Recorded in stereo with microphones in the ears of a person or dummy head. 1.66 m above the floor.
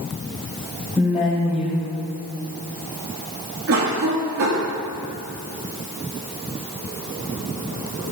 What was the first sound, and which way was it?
A woman speaking, 10° right (ahead or behind).